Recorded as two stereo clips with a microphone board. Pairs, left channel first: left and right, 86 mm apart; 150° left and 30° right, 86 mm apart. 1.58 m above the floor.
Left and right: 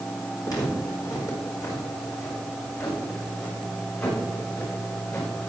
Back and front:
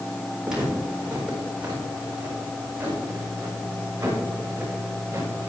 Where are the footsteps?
50° left, 4 m; by 5.5 s 35° left, 6.5 m.